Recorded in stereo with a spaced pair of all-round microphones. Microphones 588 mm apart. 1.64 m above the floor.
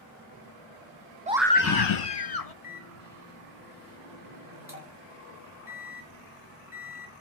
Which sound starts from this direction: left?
A microwave, at 2.6 s.